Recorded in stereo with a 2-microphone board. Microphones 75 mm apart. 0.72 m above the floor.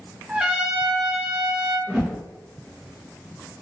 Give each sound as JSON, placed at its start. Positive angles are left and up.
{"t": 0.3, "sound": "a trumpet", "side_deg": -15, "distance_m": 0.5}
{"t": 1.9, "sound": "a whoosh", "side_deg": -10, "distance_m": 1.1}